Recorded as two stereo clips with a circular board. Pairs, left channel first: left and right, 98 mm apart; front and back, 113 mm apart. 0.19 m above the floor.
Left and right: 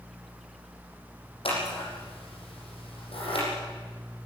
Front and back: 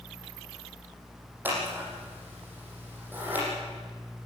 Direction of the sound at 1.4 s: 105° left.